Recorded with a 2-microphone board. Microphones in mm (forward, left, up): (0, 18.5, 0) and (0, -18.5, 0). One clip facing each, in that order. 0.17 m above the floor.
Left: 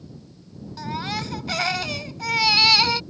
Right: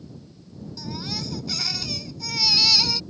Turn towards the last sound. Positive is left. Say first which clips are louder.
# left 5 dB
turn(degrees=45)  # may be behind; listen again after turning